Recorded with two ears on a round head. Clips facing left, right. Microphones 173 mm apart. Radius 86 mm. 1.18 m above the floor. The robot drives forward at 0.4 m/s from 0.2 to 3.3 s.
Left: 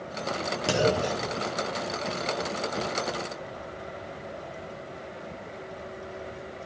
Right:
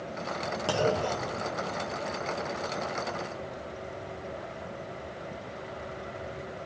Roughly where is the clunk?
Left.